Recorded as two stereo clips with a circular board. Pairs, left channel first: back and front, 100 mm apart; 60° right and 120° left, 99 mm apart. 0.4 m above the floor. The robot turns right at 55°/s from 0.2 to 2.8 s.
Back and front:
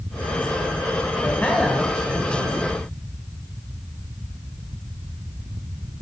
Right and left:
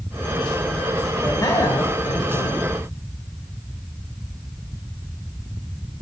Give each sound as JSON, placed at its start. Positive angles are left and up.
{"t": 1.2, "sound": "a man speaking", "azimuth_deg": -120, "distance_m": 1.5}